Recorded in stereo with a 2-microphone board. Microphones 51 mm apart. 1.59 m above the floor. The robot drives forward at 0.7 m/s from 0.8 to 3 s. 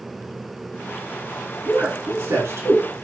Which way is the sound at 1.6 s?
50° right (ahead or behind).